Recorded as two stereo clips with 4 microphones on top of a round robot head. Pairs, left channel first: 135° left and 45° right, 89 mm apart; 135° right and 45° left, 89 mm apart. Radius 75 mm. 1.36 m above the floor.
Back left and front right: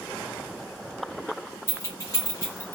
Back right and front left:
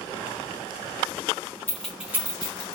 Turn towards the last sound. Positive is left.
turn(degrees=75)